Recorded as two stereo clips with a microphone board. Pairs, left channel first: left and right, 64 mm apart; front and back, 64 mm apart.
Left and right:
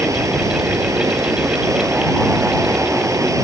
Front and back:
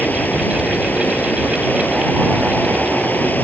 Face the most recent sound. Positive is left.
turn(degrees=-60)